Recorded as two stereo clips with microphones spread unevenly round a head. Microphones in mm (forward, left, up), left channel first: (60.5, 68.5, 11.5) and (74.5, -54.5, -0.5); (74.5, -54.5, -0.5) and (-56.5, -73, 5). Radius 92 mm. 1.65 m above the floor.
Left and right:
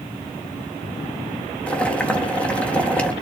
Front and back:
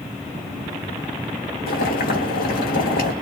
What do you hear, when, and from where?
1.7 s boiling: 20° left, 2.0 m